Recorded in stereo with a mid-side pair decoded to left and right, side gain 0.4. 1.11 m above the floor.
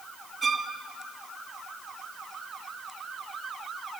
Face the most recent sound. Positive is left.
turn(degrees=-40)